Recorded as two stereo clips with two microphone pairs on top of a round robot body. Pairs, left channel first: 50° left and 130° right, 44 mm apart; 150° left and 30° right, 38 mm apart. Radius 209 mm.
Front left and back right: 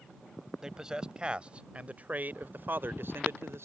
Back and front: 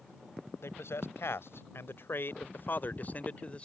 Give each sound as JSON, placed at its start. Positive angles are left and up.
{"t": 0.6, "sound": "a man speaking", "azimuth_deg": 150}